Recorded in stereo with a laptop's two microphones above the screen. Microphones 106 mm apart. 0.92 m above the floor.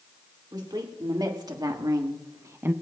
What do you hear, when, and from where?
0.5 s a woman speaking: 45° right (ahead or behind), 2.5 m; by 2.7 s 20° right (ahead or behind), 0.5 m